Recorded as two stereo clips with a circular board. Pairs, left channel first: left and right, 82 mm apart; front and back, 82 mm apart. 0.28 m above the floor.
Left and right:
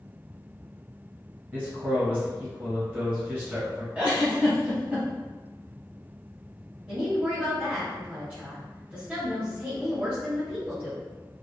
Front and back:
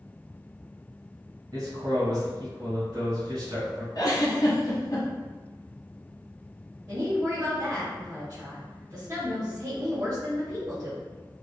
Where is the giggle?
20° right, 1.2 m.